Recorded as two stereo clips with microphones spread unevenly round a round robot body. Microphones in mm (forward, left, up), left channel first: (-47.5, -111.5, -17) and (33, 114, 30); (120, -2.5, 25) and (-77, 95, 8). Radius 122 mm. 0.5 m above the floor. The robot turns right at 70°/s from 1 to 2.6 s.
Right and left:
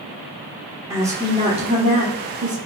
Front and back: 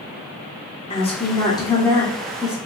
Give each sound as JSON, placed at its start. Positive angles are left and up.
{"t": 0.9, "sound": "a woman speaking", "azimuth_deg": -20, "distance_m": 1.1}